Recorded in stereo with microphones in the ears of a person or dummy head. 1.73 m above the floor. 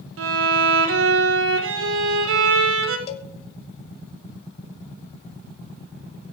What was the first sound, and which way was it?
A violin, 75° right (ahead or behind).